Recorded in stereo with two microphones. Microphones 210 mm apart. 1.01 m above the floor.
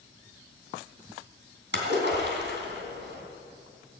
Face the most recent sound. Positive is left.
turn(degrees=-60)  # may be behind; listen again after turning